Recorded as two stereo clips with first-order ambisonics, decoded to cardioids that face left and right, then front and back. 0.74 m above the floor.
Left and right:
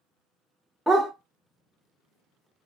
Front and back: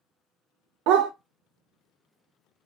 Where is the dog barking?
Straight behind, 0.7 m.